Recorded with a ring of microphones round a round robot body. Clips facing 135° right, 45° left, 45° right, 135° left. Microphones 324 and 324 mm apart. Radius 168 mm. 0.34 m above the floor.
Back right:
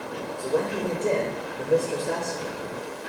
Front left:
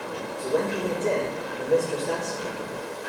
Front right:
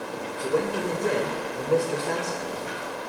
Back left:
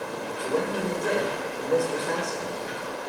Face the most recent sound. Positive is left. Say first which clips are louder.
# even, front right 2 dB
turn(degrees=-50)